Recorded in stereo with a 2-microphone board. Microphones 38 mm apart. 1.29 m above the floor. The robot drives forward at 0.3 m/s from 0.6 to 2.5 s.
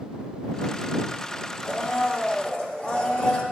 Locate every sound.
1.6 s a blender: 30° left (ahead or behind), 1.9 m